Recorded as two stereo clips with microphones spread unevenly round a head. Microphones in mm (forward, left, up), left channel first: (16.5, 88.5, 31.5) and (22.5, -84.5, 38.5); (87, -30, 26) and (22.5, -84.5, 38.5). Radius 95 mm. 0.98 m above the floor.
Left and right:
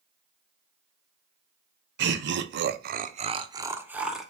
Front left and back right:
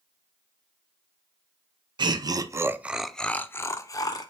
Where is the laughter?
105° right, 0.7 m; by 4.3 s straight ahead, 0.9 m.